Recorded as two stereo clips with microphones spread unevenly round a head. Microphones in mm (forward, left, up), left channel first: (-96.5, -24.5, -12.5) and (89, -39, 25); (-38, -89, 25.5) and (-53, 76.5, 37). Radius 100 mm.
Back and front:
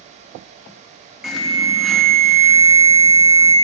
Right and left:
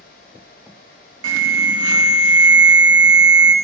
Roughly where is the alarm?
Left.